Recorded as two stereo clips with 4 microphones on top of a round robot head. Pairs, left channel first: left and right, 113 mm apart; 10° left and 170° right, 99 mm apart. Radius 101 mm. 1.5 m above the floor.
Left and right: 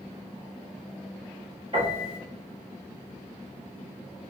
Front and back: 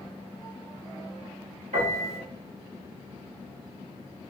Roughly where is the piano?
Behind right.